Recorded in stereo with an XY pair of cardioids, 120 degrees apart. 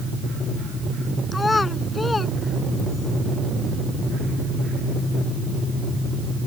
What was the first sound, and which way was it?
A child speaking, 20° left.